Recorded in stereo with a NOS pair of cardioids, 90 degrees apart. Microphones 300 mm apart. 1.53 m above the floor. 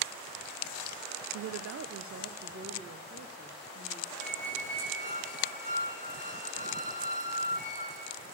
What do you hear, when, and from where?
1.3 s a woman speaking: 70° right, 0.6 m; by 4.1 s 30° right, 2.5 m
4.2 s a squeak: 25° right, 5.5 m